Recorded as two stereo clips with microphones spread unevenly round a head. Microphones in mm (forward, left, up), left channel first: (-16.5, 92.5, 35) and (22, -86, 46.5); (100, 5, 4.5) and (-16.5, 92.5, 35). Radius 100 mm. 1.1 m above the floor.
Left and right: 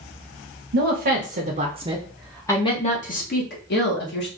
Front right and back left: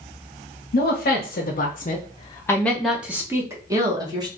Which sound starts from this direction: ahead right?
A woman speaking, at 0.7 s.